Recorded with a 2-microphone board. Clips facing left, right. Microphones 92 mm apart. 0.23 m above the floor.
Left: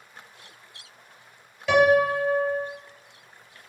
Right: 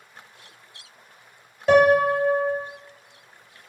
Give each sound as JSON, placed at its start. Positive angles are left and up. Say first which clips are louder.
{"t": 1.7, "sound": "a piano", "louder": "right 3 dB", "side_deg": -40, "distance_m": 0.7}